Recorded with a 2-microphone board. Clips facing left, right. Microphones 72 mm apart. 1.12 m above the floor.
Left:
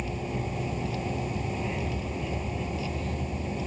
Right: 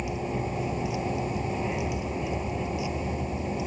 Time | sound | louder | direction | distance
0.0 | a vehicle | right 2 dB | 15° right (ahead or behind) | ?